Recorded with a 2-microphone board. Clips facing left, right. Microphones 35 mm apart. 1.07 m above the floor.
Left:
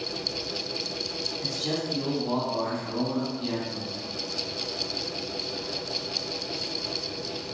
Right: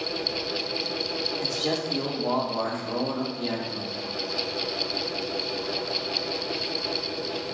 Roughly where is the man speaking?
Right.